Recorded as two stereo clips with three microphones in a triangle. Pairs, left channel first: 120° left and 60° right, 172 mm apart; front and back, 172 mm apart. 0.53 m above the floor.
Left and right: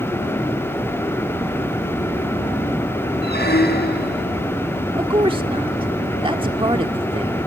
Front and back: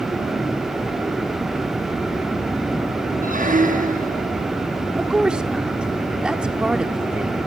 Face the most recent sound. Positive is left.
turn(degrees=-100)